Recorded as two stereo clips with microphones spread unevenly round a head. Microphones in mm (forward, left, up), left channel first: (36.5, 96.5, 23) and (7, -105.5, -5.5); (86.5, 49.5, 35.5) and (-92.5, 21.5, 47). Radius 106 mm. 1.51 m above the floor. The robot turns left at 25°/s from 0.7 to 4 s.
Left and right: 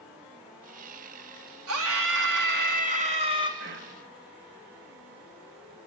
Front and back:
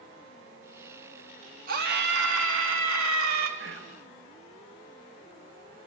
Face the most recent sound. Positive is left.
turn(degrees=-145)